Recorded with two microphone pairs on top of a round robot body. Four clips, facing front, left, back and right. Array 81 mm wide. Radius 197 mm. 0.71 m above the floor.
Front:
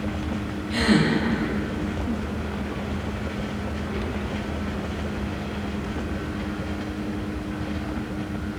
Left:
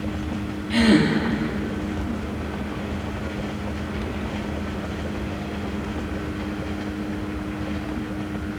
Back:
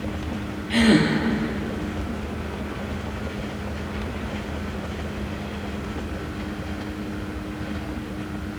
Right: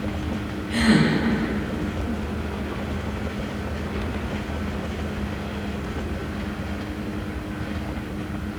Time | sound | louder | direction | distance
0.7 | a gasp | left 2 dB, back 3 dB | 170° left | 4.5 m